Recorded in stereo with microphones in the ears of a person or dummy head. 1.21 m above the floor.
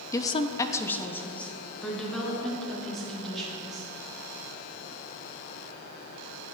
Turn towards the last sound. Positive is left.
turn(degrees=0)  # may be behind; listen again after turning